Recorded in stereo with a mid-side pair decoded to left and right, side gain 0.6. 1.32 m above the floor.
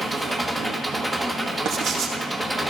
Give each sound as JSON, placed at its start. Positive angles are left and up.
{"t": 0.0, "sound": "an engine running", "azimuth_deg": -5, "distance_m": 1.6}
{"t": 1.6, "sound": "writing", "azimuth_deg": -55, "distance_m": 2.5}